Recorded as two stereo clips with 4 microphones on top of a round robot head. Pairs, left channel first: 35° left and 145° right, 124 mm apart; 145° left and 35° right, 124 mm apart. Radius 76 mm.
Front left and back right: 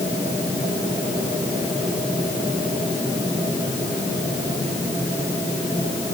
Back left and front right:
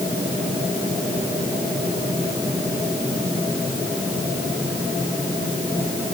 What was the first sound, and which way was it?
Only background noise.